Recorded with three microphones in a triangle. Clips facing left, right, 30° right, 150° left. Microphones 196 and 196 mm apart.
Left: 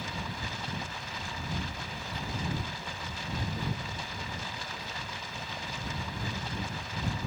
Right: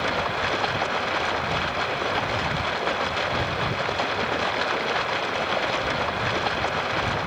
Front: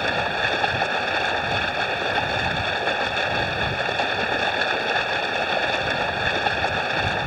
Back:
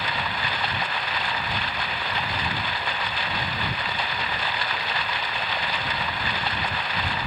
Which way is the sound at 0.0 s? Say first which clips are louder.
Right 12 dB, front 6 dB; 75° right.